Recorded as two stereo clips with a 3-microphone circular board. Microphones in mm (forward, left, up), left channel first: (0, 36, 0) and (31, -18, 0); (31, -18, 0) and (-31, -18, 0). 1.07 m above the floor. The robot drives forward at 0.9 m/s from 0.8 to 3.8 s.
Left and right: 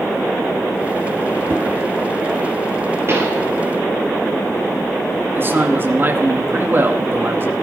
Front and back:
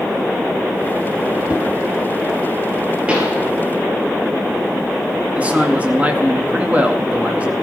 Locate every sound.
1.5 s a whoosh: 110° right, 2.5 m
3.1 s a pop: 110° right, 6 m; by 3.4 s 115° right, 6 m
5.3 s a man speaking: 115° right, 2 m